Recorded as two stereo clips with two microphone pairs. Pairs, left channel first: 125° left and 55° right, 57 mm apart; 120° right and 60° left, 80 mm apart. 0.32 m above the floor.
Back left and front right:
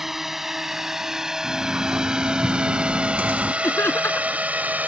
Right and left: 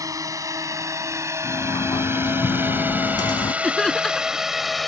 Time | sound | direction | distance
0.0 | a drone | 30° left | ?
1.4 | a sliding door | 110° right | ?
3.6 | laughter | 160° left | ?